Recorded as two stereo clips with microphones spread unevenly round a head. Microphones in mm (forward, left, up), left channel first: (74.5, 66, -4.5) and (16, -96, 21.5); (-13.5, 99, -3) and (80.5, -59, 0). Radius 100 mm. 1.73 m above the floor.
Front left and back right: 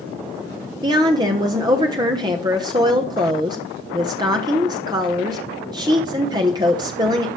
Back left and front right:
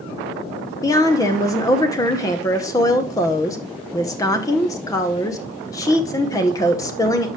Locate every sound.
0.8 s a woman speaking: 165° right, 0.9 m